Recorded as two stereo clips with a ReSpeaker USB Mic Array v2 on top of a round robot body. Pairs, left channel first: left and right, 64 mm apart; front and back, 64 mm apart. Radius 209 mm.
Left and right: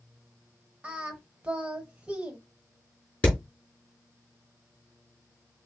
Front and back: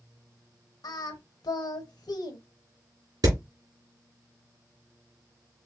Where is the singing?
20° right, 0.7 m.